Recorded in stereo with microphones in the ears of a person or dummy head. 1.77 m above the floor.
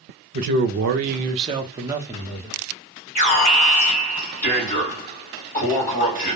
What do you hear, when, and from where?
0.3 s a man speaking: 50° right (ahead or behind), 0.6 m; by 2.6 s 5° right (ahead or behind), 1.0 m
3.1 s an alarm: 45° left (ahead or behind), 1.4 m